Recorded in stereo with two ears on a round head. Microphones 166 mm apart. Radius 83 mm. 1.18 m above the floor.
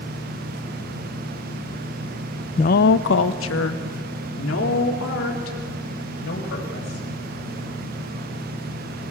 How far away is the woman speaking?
About 0.5 m.